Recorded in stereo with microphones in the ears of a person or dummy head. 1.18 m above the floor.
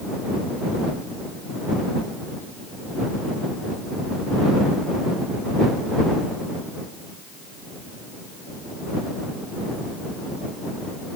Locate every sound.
Only background noise.